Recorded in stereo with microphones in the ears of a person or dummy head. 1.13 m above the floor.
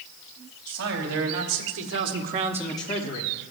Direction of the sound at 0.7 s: 80° right.